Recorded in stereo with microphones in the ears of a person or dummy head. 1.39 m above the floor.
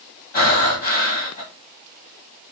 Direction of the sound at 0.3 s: 40° left (ahead or behind).